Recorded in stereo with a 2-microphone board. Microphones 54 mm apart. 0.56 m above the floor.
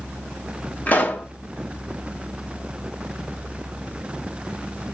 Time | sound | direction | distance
0.9 | a pop | 30° left (ahead or behind) | 0.7 m